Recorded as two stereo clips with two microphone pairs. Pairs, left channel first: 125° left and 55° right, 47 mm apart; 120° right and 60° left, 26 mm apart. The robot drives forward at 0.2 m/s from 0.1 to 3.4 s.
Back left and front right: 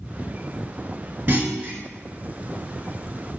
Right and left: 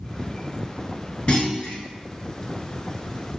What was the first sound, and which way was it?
A clunk, 85° right.